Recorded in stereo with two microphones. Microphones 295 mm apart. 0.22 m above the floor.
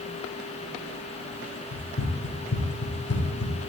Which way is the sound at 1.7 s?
65° left (ahead or behind).